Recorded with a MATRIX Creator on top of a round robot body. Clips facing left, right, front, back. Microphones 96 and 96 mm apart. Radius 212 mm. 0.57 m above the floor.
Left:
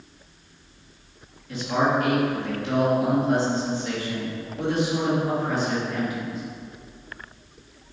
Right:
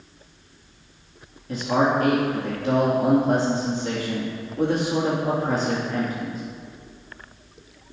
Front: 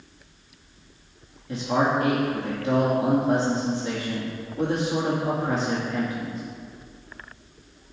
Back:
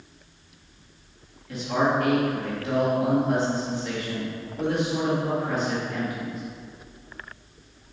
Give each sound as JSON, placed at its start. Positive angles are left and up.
{"t": 1.5, "sound": "a man speaking", "azimuth_deg": -55, "distance_m": 1.9}